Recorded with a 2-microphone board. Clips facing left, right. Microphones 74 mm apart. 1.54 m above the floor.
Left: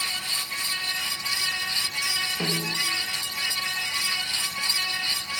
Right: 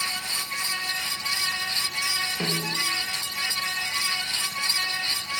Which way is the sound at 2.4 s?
15° right (ahead or behind).